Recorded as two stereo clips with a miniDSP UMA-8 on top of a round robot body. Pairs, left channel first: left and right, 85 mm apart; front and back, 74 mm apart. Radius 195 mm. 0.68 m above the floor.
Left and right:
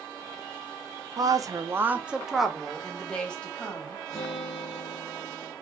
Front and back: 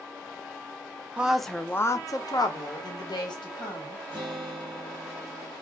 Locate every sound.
1.2 s a woman speaking: 110° right, 0.7 m; by 4.0 s 15° left, 1.7 m
4.1 s a guitar: 145° left, 1.0 m